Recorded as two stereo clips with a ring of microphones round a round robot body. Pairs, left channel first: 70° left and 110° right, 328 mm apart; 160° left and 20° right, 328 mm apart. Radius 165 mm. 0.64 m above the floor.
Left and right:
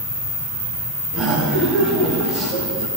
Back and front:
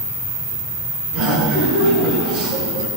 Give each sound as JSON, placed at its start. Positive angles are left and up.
{"t": 1.1, "sound": "laughter", "azimuth_deg": -25, "distance_m": 6.0}